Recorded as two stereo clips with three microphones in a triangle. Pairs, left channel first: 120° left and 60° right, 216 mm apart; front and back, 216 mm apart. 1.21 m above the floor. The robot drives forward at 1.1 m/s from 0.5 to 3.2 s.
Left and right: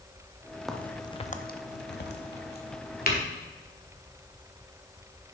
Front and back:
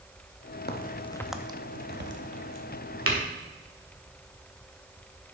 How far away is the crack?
About 0.9 m.